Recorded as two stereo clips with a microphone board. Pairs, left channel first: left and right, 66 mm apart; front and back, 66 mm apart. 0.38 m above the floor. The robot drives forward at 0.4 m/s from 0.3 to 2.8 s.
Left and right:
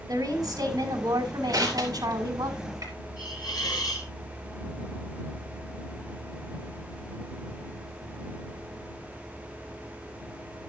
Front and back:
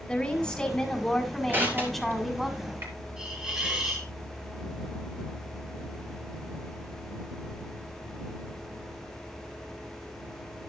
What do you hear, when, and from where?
0.1 s a woman speaking: 80° right, 3 m; by 2.5 s 95° right, 3 m
1.5 s crushing: 120° right, 3.5 m; by 2.9 s 125° right, 4 m
3.2 s a hiss: 100° left, 5 m